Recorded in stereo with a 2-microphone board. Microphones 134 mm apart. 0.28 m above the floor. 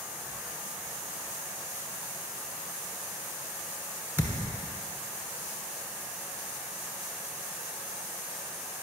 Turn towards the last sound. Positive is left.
turn(degrees=-15)  # may be behind; listen again after turning